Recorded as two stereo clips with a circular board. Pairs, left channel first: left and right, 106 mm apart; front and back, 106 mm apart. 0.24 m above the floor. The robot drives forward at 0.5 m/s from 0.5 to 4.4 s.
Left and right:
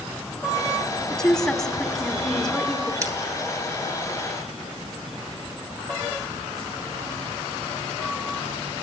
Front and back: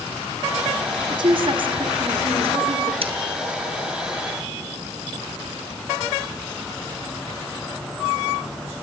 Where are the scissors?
150° right, 3 m.